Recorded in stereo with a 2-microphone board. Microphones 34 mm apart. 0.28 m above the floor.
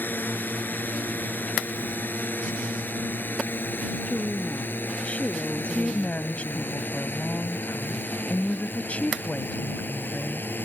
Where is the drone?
70° left (ahead or behind); by 10.7 s 75° left (ahead or behind).